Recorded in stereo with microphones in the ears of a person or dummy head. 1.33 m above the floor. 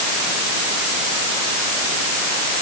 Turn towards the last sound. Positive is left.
No sound to turn to.